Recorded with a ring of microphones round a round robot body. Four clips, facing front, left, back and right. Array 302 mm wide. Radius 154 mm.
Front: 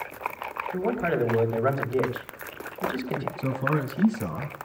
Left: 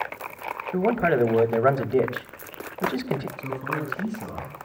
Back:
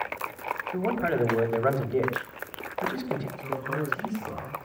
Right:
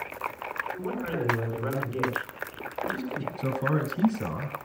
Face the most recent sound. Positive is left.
turn(degrees=-50)